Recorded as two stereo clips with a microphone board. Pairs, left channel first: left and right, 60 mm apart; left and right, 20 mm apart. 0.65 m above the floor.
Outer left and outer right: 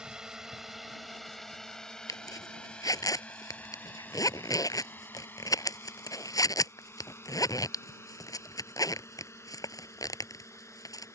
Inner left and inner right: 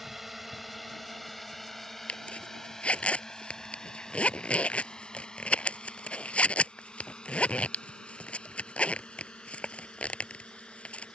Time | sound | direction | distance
0.0 | a drone | 10° right (ahead or behind) | ?
2.1 | a zipper | 75° left (ahead or behind) | ?